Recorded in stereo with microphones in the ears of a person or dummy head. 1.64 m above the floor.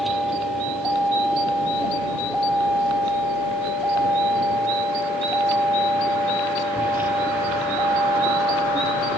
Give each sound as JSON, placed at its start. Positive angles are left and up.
{"t": 0.0, "sound": "a vehicle", "side_deg": -5}